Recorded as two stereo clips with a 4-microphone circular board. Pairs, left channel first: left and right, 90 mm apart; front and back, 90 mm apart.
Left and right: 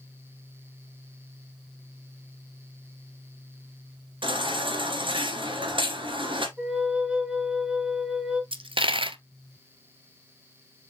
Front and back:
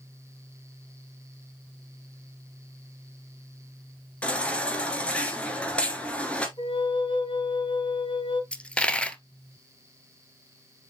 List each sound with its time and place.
4.2 s a baby crying: 75° right, 2 m
6.6 s a flute: 10° right, 1.7 m
8.5 s a dropped coin: 80° right, 0.7 m